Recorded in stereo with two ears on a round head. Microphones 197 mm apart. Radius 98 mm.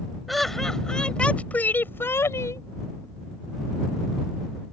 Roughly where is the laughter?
Centre.